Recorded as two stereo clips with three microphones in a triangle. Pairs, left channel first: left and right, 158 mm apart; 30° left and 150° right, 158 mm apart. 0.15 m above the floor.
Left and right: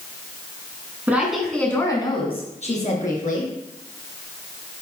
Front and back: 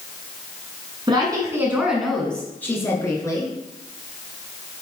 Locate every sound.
1.1 s a woman speaking: 155° right, 1.6 m; by 3.5 s 90° left, 2.5 m